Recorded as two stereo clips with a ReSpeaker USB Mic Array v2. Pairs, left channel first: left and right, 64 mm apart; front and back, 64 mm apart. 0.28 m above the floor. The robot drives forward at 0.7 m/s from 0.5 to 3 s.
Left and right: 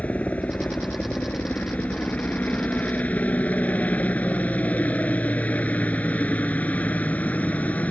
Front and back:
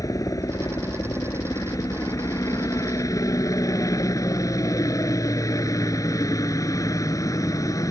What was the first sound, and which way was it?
A helicopter, 20° left.